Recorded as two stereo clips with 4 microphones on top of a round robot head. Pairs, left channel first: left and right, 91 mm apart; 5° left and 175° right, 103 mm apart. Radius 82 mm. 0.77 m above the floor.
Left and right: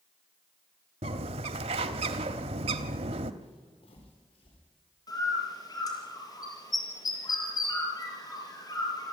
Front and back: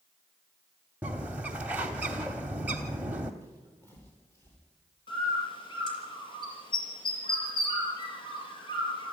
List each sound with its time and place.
1.0 s a bird: 95° right, 0.9 m
3.4 s footsteps: 75° left, 7 m; by 4.6 s 70° left, 7.5 m
5.1 s a bird: 45° left, 5.5 m